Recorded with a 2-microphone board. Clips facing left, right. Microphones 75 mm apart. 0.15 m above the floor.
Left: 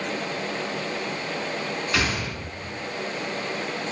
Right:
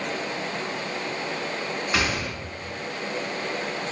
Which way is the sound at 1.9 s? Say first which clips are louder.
Right 1 dB; 20° right (ahead or behind).